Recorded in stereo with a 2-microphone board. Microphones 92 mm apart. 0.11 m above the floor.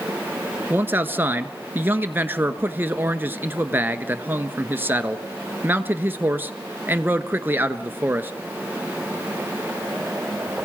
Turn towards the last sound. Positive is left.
turn(degrees=-25)  # may be behind; listen again after turning